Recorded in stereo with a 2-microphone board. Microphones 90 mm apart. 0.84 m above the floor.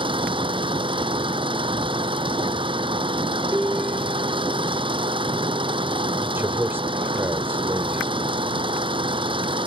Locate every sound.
0.0 s an engine running: 75° right (ahead or behind)
3.5 s a piano: 15° right (ahead or behind)
6.2 s a man speaking: 25° right (ahead or behind)